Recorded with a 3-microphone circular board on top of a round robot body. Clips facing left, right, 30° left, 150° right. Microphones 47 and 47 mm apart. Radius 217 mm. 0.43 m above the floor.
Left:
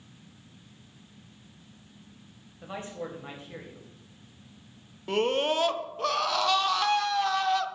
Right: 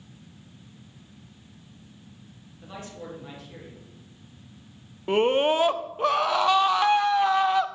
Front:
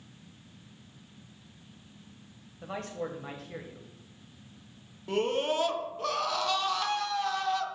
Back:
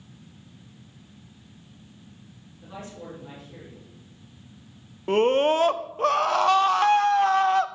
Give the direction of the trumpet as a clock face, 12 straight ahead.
I don't hear a trumpet.